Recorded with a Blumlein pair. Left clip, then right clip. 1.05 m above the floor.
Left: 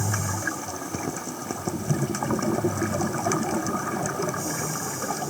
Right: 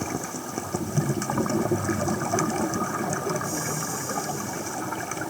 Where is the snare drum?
I don't hear a snare drum.